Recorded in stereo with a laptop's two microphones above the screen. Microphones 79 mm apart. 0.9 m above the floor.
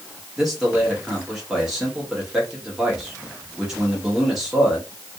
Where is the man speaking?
5° right (ahead or behind), 1.5 m.